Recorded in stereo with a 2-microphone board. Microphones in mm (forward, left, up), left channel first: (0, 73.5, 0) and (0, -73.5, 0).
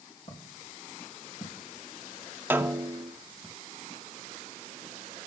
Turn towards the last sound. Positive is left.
turn(degrees=-15)  # may be behind; listen again after turning